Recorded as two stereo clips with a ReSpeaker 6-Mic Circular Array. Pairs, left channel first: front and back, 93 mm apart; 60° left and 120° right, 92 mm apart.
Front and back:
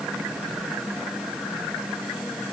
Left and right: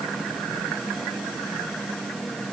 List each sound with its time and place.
Only background noise.